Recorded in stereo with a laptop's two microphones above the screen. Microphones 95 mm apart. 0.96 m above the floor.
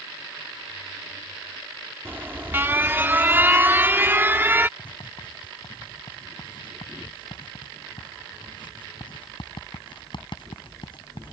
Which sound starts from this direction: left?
Writing, at 4.8 s.